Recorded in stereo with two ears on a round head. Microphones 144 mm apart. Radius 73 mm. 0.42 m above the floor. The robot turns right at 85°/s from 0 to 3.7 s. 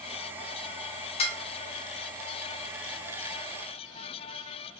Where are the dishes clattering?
40° left (ahead or behind), 0.5 m; by 1.4 s 30° left (ahead or behind), 0.5 m.